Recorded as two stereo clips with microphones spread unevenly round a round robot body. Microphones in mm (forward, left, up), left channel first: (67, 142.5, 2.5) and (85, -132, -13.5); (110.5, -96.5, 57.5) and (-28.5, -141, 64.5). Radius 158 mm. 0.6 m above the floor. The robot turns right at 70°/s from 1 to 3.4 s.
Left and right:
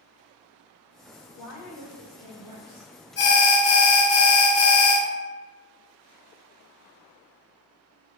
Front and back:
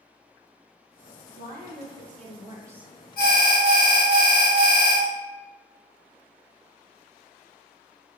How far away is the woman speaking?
About 1.4 m.